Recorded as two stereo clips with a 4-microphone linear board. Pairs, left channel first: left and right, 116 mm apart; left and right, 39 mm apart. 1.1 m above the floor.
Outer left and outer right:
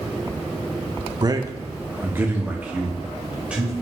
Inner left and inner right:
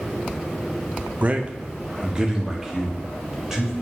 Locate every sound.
1.2 s a man speaking: 35° right (ahead or behind), 1.0 m; by 3.7 s 10° right (ahead or behind), 3.5 m